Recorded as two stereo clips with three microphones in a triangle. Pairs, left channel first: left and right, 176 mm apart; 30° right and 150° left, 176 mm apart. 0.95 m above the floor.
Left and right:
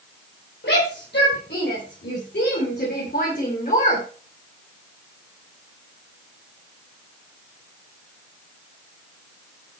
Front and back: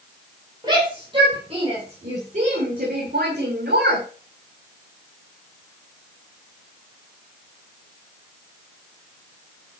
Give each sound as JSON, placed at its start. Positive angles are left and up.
{"t": 0.6, "sound": "a shout", "azimuth_deg": 85, "distance_m": 4.0}